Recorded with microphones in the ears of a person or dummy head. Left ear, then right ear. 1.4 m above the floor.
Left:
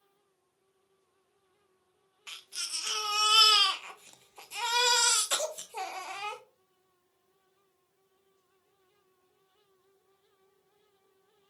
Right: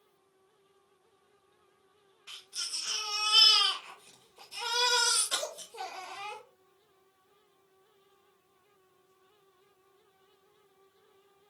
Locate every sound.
2.3 s a baby crying: 30° left (ahead or behind), 0.5 m